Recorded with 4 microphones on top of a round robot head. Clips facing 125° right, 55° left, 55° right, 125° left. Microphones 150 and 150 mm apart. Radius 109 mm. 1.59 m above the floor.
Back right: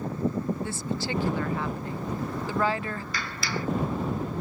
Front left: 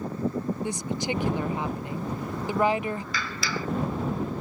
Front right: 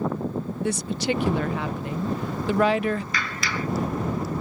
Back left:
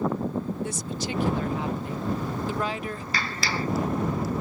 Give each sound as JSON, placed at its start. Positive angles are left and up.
{"t": 0.6, "sound": "a woman speaking", "azimuth_deg": -20}
{"t": 3.1, "sound": "a clap", "azimuth_deg": 70}